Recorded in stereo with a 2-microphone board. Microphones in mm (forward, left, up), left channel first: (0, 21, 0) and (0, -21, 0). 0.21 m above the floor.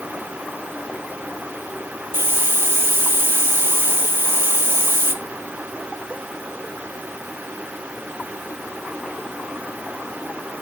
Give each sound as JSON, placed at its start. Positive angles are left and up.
{"t": 2.1, "sound": "a hiss", "side_deg": -65, "distance_m": 1.8}